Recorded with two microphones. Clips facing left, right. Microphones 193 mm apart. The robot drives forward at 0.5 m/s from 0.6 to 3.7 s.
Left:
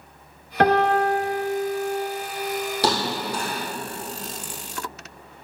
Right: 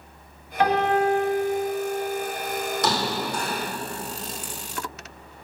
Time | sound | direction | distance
0.6 | a piano | 70° left (ahead or behind) | 0.9 m
2.8 | a thud | 35° left (ahead or behind) | 2 m